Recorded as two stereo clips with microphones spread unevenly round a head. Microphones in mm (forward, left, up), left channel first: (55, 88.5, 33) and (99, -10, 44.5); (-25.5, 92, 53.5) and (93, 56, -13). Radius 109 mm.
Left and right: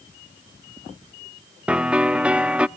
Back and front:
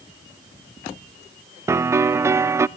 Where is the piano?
20° left, 0.5 m.